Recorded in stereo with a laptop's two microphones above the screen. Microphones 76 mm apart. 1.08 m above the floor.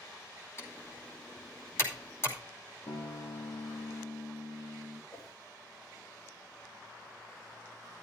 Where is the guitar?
65° left (ahead or behind), 2.5 m.